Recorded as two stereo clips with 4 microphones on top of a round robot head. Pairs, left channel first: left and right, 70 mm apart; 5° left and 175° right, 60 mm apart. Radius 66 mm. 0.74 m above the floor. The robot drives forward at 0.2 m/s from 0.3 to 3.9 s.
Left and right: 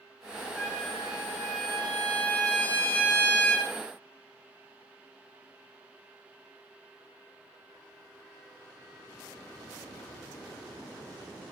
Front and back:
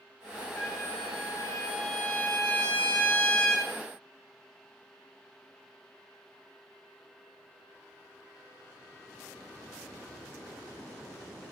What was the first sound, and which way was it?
A trumpet, 20° left.